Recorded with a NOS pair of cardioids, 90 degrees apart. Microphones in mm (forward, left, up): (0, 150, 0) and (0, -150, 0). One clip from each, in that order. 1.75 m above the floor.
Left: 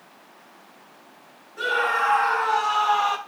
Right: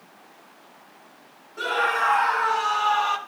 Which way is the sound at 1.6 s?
10° right.